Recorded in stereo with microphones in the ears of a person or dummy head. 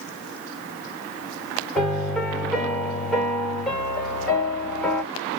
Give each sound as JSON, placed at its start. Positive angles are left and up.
{"t": 1.8, "sound": "a piano", "side_deg": 0, "distance_m": 2.0}